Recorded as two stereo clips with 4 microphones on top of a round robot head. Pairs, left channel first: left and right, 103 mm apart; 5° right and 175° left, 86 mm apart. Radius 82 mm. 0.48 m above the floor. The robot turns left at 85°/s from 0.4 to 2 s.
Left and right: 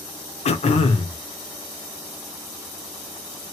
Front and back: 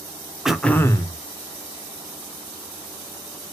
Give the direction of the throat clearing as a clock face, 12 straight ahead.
9 o'clock.